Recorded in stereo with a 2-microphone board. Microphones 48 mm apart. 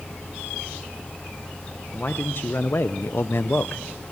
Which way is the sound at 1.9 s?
40° left (ahead or behind).